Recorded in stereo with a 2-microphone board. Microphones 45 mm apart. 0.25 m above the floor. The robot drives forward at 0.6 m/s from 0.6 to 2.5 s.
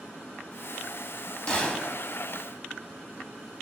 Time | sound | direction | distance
1.5 | a gunshot | 20° left (ahead or behind) | 0.7 m